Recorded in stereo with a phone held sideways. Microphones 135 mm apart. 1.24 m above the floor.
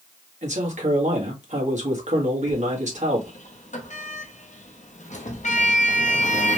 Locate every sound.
0.4 s a man speaking: 60° right (ahead or behind), 1.8 m
2.5 s a sliding door: 65° left (ahead or behind), 0.9 m